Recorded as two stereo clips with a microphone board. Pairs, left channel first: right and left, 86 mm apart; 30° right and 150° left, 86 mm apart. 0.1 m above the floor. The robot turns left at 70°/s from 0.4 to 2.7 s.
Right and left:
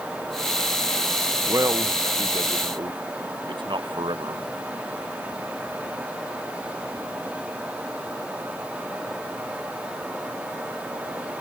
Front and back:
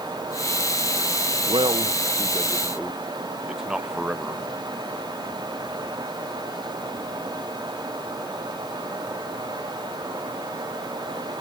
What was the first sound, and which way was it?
A man speaking, 155° left.